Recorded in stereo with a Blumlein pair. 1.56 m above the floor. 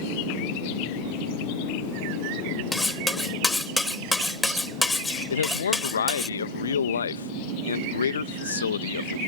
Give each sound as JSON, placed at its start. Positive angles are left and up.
{"t": 2.7, "sound": "cutlery clinking", "azimuth_deg": 10}
{"t": 5.3, "sound": "a man speaking", "azimuth_deg": 70}